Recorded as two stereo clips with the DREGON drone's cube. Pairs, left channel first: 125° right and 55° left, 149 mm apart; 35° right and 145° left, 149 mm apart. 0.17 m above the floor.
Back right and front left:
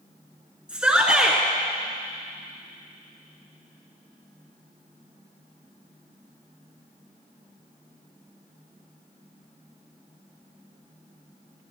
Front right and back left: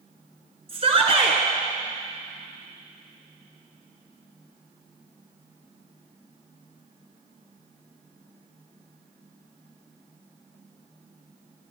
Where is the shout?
135° left, 1.3 m.